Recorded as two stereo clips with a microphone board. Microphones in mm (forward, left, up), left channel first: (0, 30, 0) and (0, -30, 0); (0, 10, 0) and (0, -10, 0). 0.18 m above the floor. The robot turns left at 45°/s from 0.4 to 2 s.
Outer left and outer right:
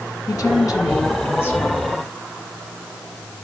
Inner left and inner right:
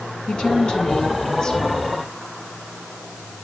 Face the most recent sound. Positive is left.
turn(degrees=20)